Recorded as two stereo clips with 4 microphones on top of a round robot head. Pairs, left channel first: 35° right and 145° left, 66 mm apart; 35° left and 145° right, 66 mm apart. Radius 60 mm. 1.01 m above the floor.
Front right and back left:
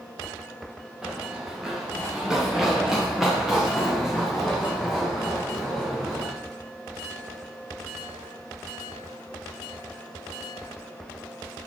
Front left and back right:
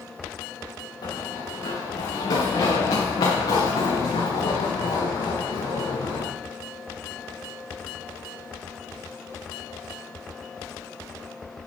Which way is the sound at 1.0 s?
60° left.